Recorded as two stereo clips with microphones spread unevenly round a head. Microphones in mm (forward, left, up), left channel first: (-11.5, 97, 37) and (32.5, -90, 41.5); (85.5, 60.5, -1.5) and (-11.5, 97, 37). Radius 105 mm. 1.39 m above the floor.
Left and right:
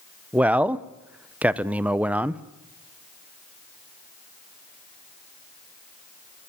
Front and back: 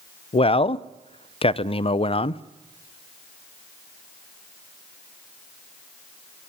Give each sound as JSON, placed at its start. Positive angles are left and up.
{"t": 0.3, "sound": "a man speaking", "azimuth_deg": 5, "distance_m": 0.8}